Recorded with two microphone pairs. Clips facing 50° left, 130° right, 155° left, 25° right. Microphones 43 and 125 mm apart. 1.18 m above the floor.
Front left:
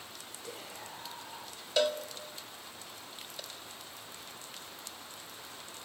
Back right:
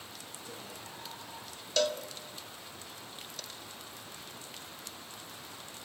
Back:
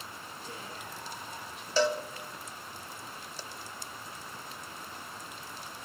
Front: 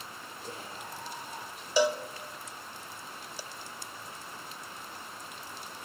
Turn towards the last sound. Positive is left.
turn(degrees=25)